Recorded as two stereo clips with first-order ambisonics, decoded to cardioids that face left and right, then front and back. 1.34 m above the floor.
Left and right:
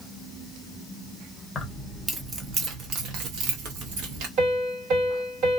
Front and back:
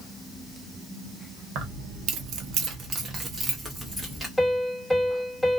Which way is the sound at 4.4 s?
85° right.